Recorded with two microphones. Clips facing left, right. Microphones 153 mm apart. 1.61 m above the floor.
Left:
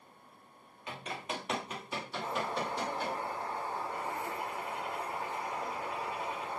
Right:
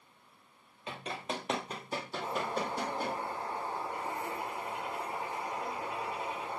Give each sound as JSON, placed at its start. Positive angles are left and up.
{"t": 0.9, "sound": "running footsteps", "side_deg": -25, "distance_m": 2.0}
{"t": 2.2, "sound": "a bird", "side_deg": -20, "distance_m": 2.5}